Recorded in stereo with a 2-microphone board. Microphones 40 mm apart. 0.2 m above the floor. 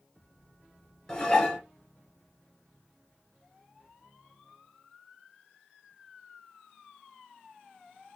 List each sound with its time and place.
1.1 s dishes clattering: 15° left (ahead or behind), 2.5 m